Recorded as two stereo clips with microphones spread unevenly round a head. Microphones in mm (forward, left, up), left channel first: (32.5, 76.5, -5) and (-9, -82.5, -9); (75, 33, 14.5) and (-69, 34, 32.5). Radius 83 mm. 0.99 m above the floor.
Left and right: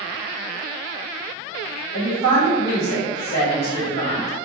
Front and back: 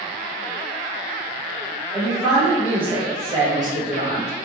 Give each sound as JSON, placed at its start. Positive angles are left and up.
{"t": 1.9, "sound": "a woman speaking", "azimuth_deg": 90, "distance_m": 1.9}